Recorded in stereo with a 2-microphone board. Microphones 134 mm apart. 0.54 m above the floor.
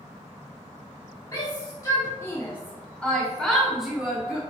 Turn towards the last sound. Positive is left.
turn(degrees=-5)  # may be behind; listen again after turning